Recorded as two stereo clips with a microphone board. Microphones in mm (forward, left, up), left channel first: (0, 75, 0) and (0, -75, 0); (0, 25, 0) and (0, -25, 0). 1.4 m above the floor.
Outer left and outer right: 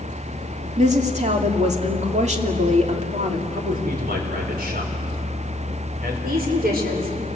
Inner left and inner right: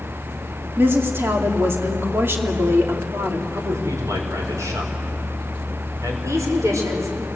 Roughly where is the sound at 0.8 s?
Right.